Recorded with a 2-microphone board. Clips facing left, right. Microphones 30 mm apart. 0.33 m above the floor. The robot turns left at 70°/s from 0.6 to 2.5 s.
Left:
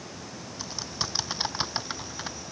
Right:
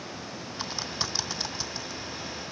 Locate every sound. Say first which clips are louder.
0.6 s typing on a keyboard: right 2 dB; 30° right (ahead or behind); by 2.4 s 85° left